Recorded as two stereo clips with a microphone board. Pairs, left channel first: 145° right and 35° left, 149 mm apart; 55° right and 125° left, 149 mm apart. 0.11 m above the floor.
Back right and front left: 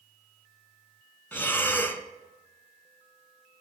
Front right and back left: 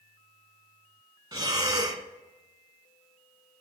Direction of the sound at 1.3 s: 150° left.